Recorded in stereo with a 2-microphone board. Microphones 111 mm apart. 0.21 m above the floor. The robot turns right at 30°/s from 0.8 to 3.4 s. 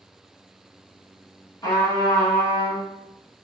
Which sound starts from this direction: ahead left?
A trumpet, at 1.6 s.